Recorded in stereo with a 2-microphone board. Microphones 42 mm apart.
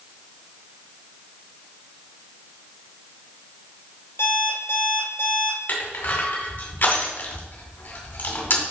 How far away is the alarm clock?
About 3 m.